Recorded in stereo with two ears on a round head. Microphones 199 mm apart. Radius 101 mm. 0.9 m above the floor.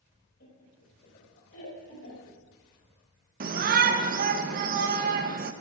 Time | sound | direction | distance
0.4 | laughter | 55° left (ahead or behind) | 4 m
3.4 | a shout | 40° right (ahead or behind) | 0.6 m